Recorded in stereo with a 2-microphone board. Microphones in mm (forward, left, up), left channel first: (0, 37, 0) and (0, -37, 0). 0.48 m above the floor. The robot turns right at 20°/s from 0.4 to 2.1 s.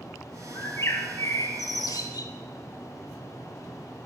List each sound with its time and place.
0.5 s a bird: 40° left, 1.0 m; by 2.3 s 70° left, 1.0 m